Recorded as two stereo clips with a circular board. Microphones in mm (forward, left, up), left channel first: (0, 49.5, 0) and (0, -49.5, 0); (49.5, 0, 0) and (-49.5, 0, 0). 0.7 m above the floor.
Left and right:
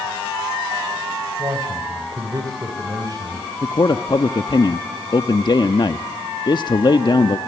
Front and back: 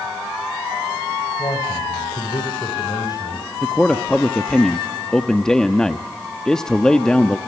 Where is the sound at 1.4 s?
40° right, 2.5 m.